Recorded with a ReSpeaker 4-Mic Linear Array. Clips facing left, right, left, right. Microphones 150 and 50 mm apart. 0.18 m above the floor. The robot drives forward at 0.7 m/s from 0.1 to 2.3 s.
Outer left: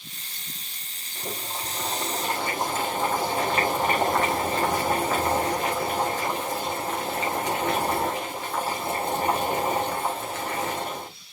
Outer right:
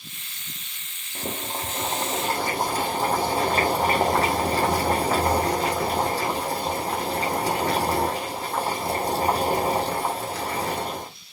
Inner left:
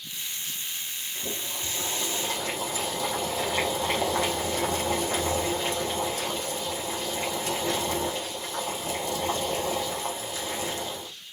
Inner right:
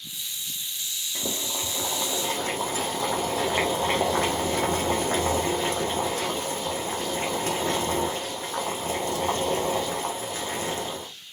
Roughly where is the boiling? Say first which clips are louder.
Outer right 3 dB, inner right 4 dB; right.